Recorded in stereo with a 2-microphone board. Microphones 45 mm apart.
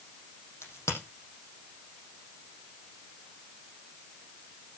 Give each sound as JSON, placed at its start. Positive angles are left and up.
{"t": 0.6, "sound": "a crack", "side_deg": 75, "distance_m": 6.0}